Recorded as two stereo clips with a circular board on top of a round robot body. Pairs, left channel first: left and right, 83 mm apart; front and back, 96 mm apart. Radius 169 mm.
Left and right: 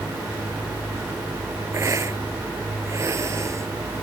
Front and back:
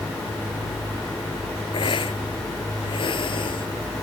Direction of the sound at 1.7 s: 35° right.